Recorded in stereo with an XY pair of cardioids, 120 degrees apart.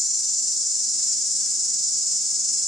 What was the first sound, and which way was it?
An insect, 20° right.